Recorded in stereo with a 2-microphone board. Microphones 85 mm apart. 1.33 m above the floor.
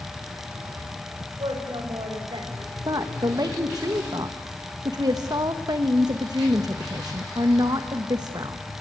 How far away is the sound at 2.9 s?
About 1.3 m.